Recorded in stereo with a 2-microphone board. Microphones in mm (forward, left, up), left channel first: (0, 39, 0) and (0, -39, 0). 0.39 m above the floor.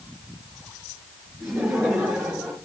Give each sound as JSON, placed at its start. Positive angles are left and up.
{"t": 1.4, "sound": "laughter", "side_deg": -5, "distance_m": 5.0}